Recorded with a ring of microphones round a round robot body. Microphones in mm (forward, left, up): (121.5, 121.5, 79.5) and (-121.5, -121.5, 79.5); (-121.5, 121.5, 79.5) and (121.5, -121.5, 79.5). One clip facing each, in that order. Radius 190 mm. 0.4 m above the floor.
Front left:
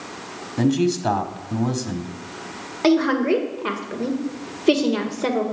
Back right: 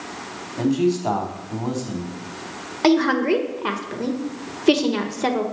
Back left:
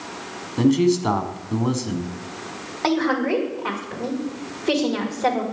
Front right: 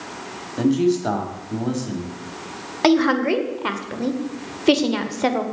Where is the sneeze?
No sneeze in this recording.